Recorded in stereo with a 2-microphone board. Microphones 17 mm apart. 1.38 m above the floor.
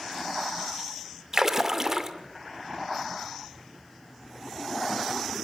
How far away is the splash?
About 2 m.